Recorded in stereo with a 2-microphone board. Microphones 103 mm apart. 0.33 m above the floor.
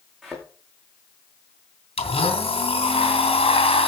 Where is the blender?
65° left (ahead or behind), 3.5 m.